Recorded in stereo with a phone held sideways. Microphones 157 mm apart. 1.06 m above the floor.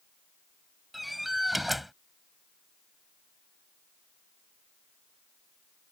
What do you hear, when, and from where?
0.9 s a door slam: centre (ahead or behind)